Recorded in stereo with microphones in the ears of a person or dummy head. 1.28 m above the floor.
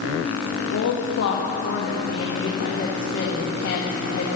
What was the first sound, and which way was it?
A woman speaking, 70° left (ahead or behind).